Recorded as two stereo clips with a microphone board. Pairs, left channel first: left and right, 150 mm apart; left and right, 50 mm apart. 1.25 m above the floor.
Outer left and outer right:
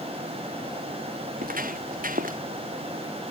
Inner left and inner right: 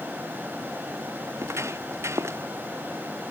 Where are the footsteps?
70° right (ahead or behind).